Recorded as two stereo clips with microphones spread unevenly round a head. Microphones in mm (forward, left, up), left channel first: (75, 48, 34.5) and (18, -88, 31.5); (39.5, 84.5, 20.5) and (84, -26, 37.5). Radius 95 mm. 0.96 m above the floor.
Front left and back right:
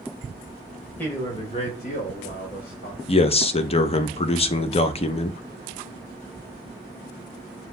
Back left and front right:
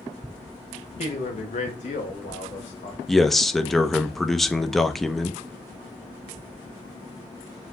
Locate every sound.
1.0 s a man speaking: 145° left, 0.9 m; by 3.0 s 90° left, 1.8 m
3.1 s a man speaking: 30° left, 0.6 m